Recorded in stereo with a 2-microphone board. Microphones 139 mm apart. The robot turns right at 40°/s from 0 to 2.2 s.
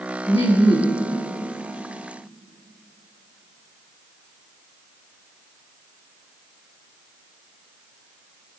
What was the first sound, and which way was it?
Laughter, 125° left.